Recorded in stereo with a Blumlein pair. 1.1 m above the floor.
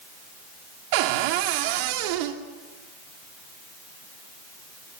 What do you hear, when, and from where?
0.9 s a cupboard door: 45° right, 2.5 m